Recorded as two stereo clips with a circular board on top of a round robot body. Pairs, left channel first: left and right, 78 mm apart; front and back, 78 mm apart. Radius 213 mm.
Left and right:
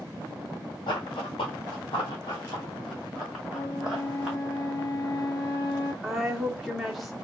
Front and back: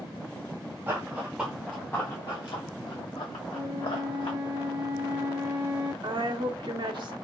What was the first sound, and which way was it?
Running footsteps, 115° left.